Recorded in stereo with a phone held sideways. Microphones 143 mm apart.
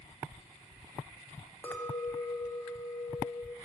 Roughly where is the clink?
Centre.